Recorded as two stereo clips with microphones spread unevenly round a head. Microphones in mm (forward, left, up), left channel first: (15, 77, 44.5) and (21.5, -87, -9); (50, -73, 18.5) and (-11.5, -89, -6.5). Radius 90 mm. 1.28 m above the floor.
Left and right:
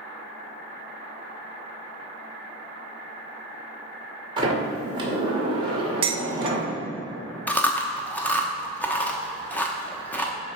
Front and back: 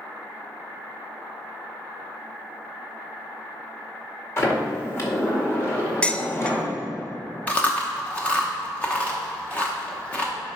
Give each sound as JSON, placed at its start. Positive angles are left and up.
{"t": 4.4, "sound": "a sliding door", "azimuth_deg": -20, "distance_m": 2.0}
{"t": 6.0, "sound": "dishes clattering", "azimuth_deg": -20, "distance_m": 0.5}
{"t": 7.5, "sound": "chewing", "azimuth_deg": 35, "distance_m": 0.9}